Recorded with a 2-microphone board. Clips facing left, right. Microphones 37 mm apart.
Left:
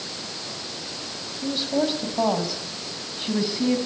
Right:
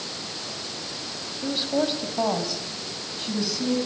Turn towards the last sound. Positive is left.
turn(degrees=30)  # may be behind; listen again after turning